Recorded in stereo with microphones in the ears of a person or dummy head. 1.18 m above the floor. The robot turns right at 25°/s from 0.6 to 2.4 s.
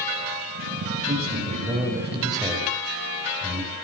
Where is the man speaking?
35° right, 7.5 m; by 3.7 s straight ahead, 7.5 m.